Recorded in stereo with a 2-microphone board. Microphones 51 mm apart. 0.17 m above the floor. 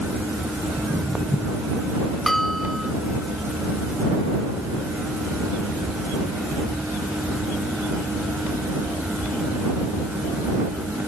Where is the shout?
No shout in this recording.